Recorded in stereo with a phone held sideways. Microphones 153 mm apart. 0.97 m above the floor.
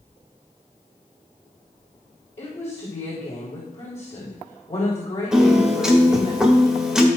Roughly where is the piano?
Centre.